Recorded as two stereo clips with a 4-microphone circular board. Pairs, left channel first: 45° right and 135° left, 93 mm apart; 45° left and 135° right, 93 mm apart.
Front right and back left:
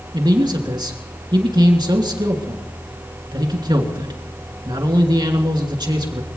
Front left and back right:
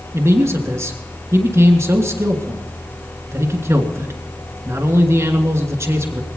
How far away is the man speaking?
About 3 m.